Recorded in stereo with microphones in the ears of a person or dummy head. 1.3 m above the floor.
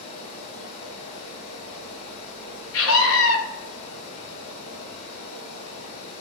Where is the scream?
80° left, 1.7 m.